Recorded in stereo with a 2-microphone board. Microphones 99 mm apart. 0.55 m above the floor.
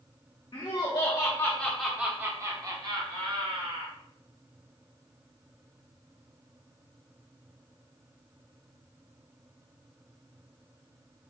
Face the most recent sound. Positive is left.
turn(degrees=-60)  # may be behind; listen again after turning